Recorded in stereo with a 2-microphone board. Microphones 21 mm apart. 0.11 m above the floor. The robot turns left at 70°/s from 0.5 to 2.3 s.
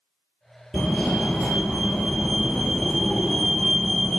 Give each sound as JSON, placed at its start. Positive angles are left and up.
{"t": 0.7, "sound": "a fire alarm", "azimuth_deg": 135, "distance_m": 3.0}